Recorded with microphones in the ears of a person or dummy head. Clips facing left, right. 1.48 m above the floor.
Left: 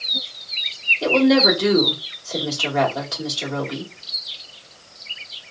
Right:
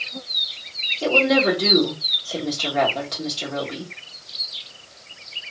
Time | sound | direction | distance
1.0 | a woman speaking | 10° left (ahead or behind) | 1.6 m